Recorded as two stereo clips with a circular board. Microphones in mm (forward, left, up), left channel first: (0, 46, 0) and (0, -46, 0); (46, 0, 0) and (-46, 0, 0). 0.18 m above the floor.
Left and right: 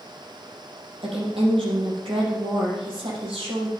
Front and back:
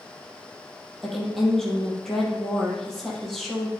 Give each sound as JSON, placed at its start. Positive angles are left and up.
{"t": 1.0, "sound": "a woman speaking", "azimuth_deg": -90, "distance_m": 5.0}